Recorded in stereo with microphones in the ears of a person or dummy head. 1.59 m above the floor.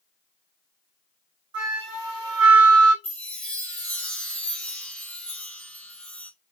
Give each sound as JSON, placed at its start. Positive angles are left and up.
{"t": 1.5, "sound": "a flute", "side_deg": -25, "distance_m": 1.3}
{"t": 3.0, "sound": "a chime", "side_deg": 5, "distance_m": 0.6}